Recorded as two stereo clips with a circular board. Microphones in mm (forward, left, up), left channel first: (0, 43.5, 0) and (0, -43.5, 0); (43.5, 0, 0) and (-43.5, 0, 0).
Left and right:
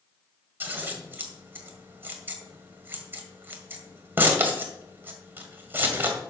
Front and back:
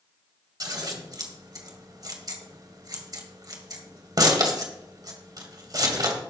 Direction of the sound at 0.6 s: 150° right.